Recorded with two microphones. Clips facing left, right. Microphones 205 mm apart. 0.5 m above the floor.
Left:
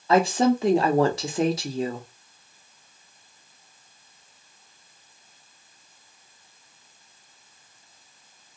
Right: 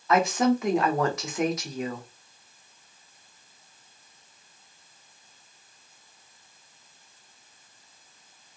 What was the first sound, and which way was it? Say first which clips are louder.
A woman speaking: left 3 dB; 30° left (ahead or behind).